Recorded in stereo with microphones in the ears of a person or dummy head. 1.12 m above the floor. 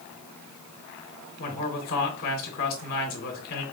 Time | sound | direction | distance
1.4 | a man speaking | 45° left (ahead or behind) | 1.4 m